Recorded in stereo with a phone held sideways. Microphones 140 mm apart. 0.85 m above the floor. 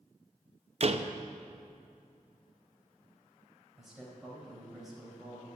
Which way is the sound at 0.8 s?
50° right (ahead or behind).